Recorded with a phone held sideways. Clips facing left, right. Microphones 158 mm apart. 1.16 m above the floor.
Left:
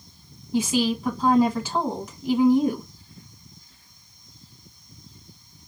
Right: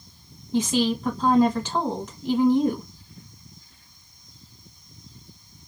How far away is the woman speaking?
About 1.3 m.